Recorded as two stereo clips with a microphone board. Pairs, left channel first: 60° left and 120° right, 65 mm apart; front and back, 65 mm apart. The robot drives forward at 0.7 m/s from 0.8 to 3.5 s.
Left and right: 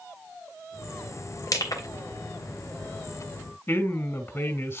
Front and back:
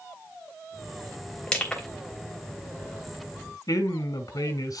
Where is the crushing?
70° left, 3 m; by 1.9 s 75° left, 3 m.